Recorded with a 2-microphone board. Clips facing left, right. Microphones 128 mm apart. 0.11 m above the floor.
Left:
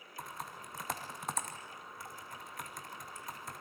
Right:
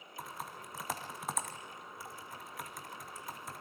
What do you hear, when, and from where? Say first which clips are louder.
0.2 s typing on a keyboard: even; centre (ahead or behind), 2.5 m